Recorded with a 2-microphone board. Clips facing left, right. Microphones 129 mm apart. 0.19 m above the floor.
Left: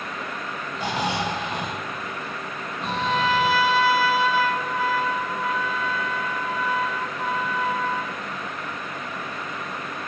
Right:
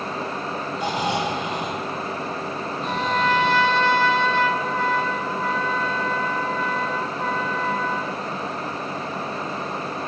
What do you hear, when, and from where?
0.8 s snoring: 30° left (ahead or behind), 6.5 m
2.8 s a trumpet: 10° left (ahead or behind), 0.9 m